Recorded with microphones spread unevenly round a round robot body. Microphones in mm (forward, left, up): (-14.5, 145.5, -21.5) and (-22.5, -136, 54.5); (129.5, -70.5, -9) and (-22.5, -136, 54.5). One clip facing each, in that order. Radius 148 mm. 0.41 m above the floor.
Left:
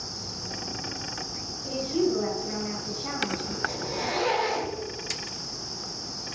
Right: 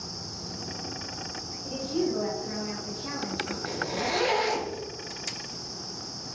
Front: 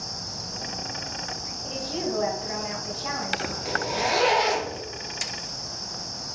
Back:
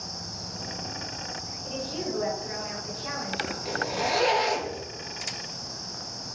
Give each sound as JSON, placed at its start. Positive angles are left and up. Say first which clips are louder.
{"t": 1.6, "sound": "a woman speaking", "louder": "left 3 dB, front 3 dB", "azimuth_deg": 0, "distance_m": 2.5}
{"t": 3.6, "sound": "a zipper", "louder": "right 2 dB, front 2 dB", "azimuth_deg": -65, "distance_m": 3.0}